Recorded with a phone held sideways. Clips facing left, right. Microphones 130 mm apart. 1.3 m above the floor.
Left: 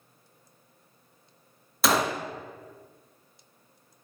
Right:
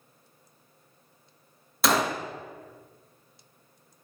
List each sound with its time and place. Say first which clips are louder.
1.8 s a gunshot: even; centre (ahead or behind), 0.5 m